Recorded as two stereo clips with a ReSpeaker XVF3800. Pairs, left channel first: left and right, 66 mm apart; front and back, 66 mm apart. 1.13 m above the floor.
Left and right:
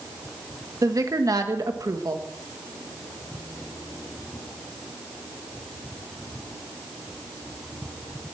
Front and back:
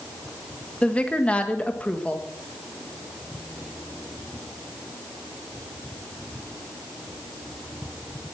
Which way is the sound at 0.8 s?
70° right.